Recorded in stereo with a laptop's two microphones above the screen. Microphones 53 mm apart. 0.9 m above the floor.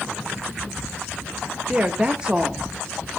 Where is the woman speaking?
15° right (ahead or behind), 1.1 m.